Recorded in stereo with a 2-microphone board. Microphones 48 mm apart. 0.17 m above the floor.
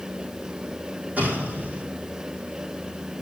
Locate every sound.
1.2 s an explosion: 35° right (ahead or behind), 4.5 m